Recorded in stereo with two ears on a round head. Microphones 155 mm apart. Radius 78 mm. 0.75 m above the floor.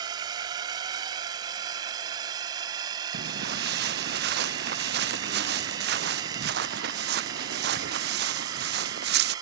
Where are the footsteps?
70° right (ahead or behind).